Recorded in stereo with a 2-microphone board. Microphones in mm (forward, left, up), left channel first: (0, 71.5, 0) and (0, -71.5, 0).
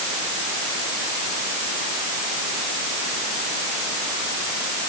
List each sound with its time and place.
Only background noise.